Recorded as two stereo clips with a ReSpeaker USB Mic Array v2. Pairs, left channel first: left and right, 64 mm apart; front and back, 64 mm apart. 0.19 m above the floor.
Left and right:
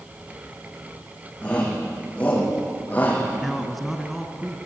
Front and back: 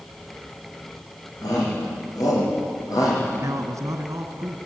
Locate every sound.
1.4 s a shout: 20° left, 9 m; by 3.2 s 25° left, 8 m
3.4 s a man speaking: 175° right, 2 m